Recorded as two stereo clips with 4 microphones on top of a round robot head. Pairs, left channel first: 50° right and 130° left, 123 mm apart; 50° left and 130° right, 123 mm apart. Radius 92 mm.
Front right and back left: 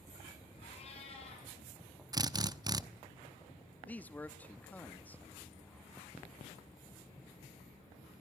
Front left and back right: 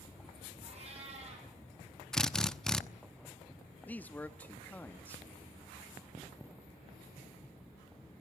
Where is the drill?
130° left, 1.0 m.